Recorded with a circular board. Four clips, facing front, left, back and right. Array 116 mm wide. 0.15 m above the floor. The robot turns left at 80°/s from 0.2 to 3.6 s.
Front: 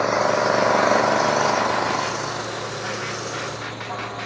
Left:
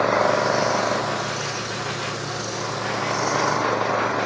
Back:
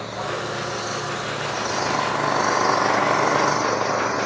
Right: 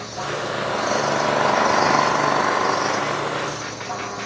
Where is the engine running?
50° left; by 4.3 s 140° left.